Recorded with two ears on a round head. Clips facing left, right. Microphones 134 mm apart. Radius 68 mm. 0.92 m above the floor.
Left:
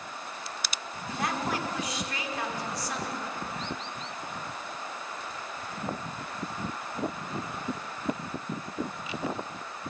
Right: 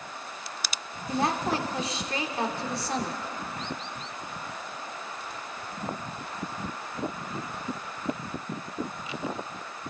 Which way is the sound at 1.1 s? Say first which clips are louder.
Right 4 dB; 25° right (ahead or behind).